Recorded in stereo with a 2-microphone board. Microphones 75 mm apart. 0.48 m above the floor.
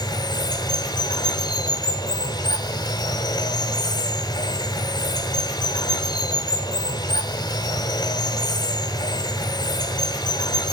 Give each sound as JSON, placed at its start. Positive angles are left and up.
{"t": 0.0, "sound": "running water", "side_deg": 75, "distance_m": 1.2}